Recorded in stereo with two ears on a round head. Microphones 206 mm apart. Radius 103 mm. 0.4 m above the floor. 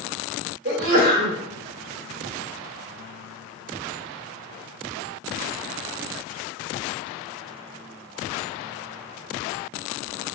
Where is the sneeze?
40° right (ahead or behind), 1.0 m.